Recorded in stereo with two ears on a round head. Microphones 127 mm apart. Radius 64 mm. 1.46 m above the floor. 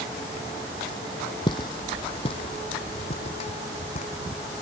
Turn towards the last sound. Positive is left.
turn(degrees=50)  # may be behind; listen again after turning